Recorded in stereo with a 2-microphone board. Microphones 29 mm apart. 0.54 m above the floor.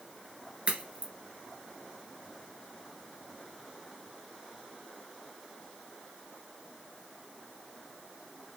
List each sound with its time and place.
0.7 s a crack: 40° right (ahead or behind), 1.5 m